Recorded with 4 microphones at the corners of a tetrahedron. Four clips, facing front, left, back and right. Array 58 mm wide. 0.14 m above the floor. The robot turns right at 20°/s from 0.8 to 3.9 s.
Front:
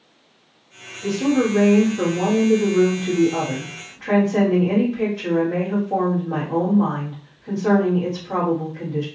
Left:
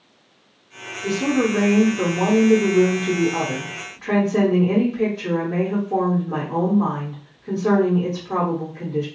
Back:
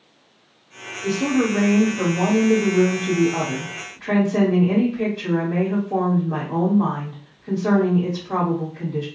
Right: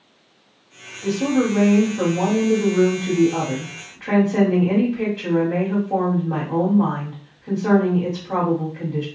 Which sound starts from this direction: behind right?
A woman speaking, at 1.0 s.